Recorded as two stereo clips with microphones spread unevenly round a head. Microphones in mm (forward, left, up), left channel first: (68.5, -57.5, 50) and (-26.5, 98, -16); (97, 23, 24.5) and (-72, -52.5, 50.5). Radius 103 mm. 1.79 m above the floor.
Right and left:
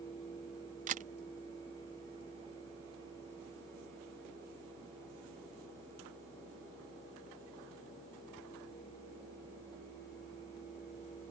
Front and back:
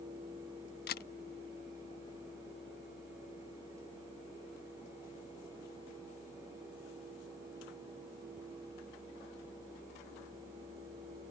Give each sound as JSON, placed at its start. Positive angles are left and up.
{"t": 0.9, "sound": "a camera shutter", "azimuth_deg": 70}